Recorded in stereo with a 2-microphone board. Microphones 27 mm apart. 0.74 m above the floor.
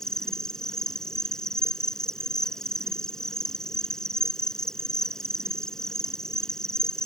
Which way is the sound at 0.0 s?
25° left (ahead or behind).